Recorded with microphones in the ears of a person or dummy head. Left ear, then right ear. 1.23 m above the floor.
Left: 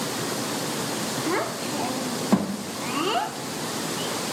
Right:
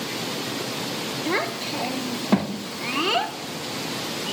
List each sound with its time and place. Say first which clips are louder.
1.3 s a child speaking: right 3 dB; 10° right (ahead or behind), 0.6 m